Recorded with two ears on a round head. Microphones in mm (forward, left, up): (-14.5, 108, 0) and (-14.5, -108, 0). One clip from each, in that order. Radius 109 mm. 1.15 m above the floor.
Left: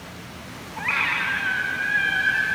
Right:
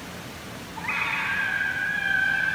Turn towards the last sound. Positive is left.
turn(degrees=55)  # may be behind; listen again after turning